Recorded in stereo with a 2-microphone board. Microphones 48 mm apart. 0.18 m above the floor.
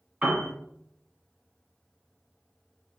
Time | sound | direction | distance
0.2 | a piano | 25° right (ahead or behind) | 1.9 m